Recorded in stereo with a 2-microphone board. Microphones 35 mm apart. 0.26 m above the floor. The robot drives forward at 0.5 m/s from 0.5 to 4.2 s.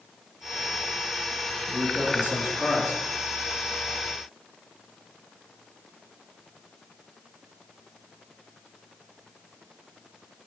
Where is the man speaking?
40° right (ahead or behind), 4.5 m; by 3.0 s 35° right (ahead or behind), 5 m.